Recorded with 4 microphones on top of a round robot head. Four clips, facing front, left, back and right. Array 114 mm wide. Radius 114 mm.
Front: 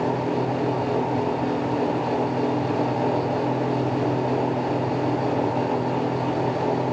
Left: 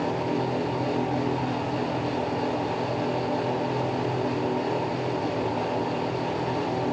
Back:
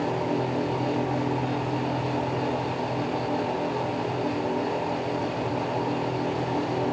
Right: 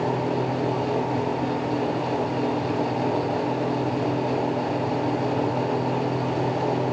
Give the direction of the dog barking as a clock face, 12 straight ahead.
No dog barking in this recording.